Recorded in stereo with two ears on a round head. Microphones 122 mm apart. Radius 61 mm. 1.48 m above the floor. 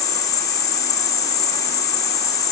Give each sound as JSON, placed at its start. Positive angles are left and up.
{"t": 0.0, "sound": "an insect", "side_deg": 25, "distance_m": 3.0}